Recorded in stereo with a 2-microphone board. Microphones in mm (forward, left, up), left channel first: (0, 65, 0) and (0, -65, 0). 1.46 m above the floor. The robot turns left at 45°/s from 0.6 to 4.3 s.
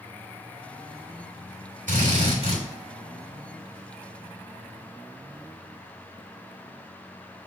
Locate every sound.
1.9 s a drill: 100° right, 3 m; by 2.6 s 135° right, 3 m